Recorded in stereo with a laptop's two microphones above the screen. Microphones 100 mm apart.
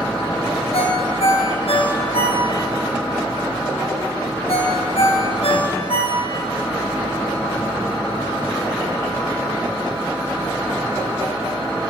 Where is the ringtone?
90° left, 4 m.